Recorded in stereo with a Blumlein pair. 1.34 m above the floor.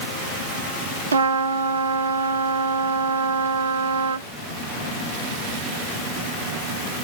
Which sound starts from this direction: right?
A trumpet, at 1.1 s.